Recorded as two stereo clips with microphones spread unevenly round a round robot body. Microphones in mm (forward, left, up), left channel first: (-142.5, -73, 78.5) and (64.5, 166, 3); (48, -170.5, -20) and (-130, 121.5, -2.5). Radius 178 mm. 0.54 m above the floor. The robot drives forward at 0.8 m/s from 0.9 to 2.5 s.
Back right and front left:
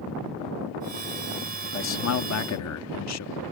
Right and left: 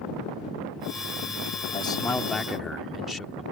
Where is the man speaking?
105° right; by 3.4 s 145° right.